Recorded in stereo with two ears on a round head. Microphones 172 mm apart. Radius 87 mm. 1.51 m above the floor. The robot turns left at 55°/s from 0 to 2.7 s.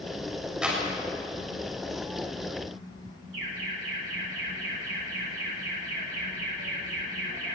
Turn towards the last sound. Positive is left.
turn(degrees=-75)  # may be behind; listen again after turning